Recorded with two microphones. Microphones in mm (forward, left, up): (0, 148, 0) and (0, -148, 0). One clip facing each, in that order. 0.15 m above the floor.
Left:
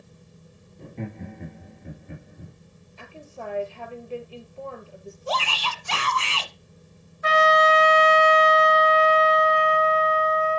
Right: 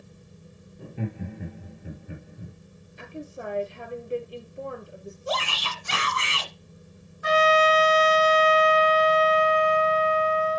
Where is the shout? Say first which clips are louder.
Left 1 dB; 20° right (ahead or behind), 1.6 m.